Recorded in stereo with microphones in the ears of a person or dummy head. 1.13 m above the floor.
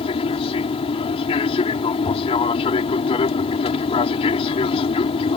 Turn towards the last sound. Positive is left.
turn(degrees=35)  # may be behind; listen again after turning